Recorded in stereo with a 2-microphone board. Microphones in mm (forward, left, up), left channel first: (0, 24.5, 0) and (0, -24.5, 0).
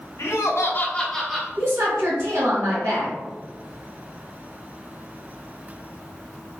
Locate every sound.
0.2 s laughter: 85° left, 0.7 m; by 1.5 s 5° right (ahead or behind), 0.9 m
1.6 s a woman speaking: 60° right (ahead or behind), 1.4 m